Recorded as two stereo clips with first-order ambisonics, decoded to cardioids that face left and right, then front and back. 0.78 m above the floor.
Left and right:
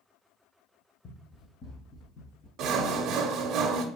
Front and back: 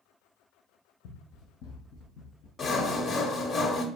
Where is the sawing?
55° right, 0.7 m.